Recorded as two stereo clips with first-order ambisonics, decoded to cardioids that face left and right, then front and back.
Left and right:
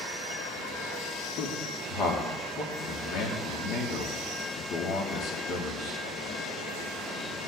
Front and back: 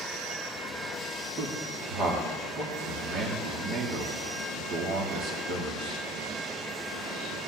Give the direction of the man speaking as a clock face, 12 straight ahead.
8 o'clock.